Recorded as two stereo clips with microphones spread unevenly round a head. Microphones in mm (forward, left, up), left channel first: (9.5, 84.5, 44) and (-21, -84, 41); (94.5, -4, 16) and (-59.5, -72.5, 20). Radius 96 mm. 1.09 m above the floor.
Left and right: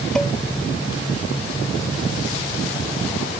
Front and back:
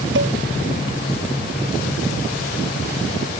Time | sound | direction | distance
0.1 | dishes clattering | 165° left | ?